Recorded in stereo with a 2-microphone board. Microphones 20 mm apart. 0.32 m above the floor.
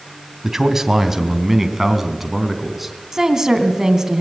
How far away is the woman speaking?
About 2.5 m.